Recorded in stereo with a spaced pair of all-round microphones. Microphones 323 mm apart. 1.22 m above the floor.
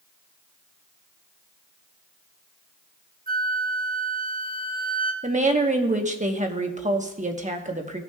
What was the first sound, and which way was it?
A flute, 25° right (ahead or behind).